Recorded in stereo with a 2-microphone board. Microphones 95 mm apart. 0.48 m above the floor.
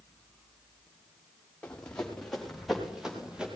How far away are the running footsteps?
About 3.5 m.